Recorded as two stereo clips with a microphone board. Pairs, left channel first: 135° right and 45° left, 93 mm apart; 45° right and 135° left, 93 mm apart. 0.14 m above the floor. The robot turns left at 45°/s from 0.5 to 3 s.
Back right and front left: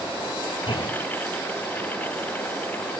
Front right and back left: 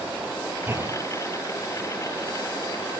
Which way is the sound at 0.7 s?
155° right.